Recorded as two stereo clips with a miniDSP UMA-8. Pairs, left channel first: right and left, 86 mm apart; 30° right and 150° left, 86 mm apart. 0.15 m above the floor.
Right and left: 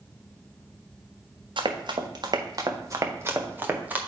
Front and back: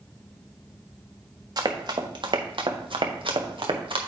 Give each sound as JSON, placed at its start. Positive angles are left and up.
{"t": 1.6, "sound": "running footsteps", "azimuth_deg": 115, "distance_m": 1.7}